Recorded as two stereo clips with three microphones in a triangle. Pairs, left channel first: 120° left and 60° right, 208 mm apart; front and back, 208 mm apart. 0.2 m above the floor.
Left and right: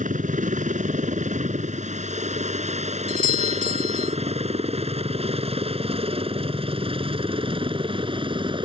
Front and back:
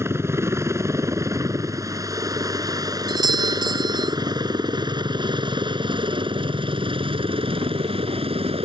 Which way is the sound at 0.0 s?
105° right.